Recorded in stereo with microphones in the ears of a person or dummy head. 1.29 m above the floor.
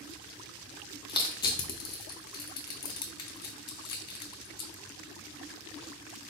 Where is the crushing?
20° left (ahead or behind), 0.5 m.